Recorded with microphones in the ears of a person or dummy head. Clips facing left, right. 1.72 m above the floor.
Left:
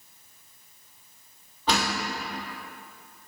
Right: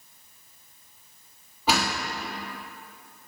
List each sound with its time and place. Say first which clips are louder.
1.7 s a door slam: right 1 dB; 10° right (ahead or behind), 2.5 m